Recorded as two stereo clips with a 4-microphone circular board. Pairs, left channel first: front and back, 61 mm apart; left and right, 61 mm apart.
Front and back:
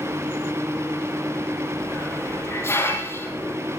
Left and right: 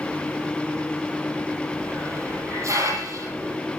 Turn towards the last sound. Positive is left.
turn(degrees=-50)